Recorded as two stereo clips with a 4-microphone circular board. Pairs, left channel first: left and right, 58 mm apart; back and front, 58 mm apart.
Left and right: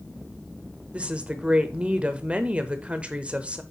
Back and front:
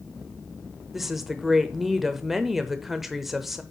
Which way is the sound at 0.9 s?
80° right.